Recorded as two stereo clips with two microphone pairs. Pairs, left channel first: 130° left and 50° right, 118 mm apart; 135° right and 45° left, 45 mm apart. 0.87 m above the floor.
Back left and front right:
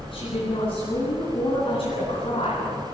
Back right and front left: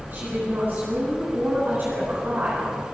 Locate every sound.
0.1 s a woman speaking: 90° left, 9 m